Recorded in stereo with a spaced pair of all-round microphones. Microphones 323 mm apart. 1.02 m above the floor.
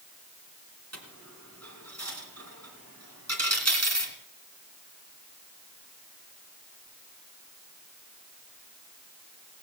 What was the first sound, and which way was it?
A dropped coin, 50° right (ahead or behind).